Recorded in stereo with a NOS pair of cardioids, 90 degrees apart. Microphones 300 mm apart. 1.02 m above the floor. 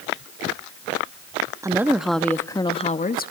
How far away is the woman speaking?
About 1.8 m.